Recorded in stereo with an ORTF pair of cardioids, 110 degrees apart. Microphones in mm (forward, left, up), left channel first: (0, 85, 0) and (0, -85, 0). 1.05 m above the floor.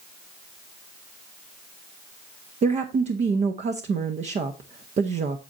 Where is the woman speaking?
40° right, 0.9 m.